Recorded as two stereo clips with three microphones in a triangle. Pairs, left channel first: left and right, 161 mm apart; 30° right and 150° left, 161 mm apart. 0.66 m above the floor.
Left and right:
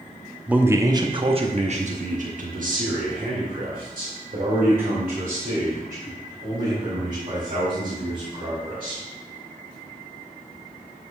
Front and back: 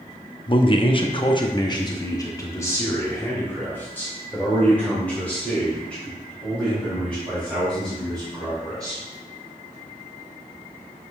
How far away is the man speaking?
About 0.8 m.